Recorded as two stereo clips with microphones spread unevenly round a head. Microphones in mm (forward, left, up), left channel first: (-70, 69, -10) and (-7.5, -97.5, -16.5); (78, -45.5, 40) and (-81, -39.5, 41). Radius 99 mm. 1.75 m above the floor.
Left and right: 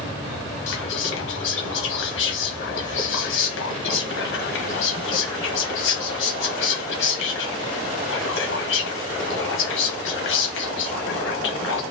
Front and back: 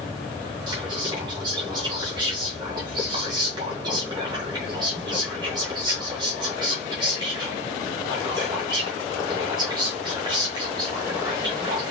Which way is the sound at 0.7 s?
110° left.